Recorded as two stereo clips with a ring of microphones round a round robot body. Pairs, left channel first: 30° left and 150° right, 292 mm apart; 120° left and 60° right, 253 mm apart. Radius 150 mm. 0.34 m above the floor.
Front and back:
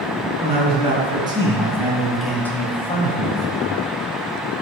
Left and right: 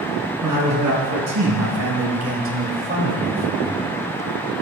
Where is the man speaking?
80° right, 4.5 m; by 3.8 s 20° left, 1.8 m.